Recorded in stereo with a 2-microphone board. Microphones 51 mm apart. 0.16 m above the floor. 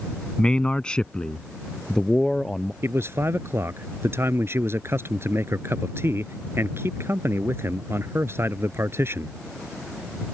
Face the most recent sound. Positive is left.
turn(degrees=-55)  # may be behind; listen again after turning